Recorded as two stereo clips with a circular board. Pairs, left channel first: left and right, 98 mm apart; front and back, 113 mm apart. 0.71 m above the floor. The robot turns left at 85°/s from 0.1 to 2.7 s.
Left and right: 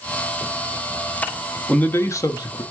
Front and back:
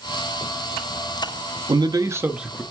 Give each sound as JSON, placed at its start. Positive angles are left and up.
{"t": 1.7, "sound": "a man speaking", "azimuth_deg": 165, "distance_m": 0.7}